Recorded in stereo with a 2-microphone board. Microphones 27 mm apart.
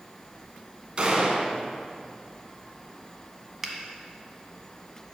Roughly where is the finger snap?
Centre.